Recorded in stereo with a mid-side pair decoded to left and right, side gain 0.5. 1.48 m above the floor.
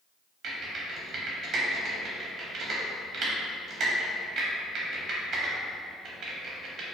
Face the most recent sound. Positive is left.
turn(degrees=-60)